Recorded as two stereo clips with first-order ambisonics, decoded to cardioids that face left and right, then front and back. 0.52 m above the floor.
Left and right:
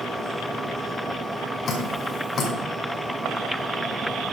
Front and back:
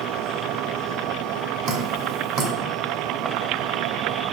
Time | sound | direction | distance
1.7 | dripping | 155° left | 2 m